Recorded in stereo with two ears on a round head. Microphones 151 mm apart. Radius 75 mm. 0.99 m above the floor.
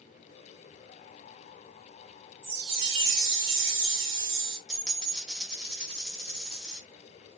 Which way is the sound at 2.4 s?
80° right.